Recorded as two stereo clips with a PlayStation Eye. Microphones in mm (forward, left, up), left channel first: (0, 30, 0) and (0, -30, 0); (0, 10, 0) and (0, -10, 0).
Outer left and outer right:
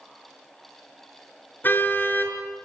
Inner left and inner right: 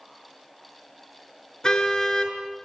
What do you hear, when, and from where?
1.6 s a car horn: 35° left (ahead or behind), 5.5 m